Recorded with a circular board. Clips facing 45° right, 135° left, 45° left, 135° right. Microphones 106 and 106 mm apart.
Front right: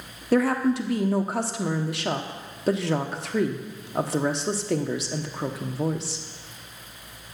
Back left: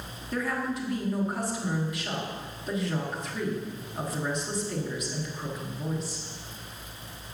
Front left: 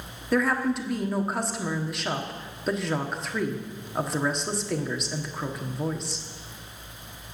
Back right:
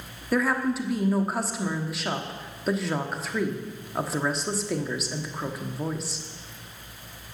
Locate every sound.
0.3 s a woman speaking: 45° right, 1.2 m